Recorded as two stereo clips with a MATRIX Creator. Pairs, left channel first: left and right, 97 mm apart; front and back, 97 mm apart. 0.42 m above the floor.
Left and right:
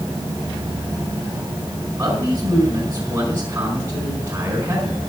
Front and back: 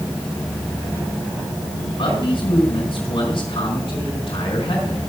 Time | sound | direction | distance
2.0 | a man speaking | 25° right | 4.5 m